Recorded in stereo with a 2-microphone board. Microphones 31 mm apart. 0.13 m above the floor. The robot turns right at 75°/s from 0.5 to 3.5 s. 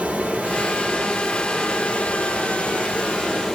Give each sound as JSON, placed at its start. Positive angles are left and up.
{"t": 0.0, "sound": "running water", "azimuth_deg": -60, "distance_m": 1.4}